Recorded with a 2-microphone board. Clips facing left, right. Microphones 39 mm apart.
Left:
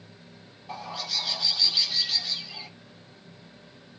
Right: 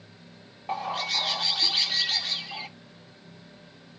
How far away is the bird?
About 1.1 m.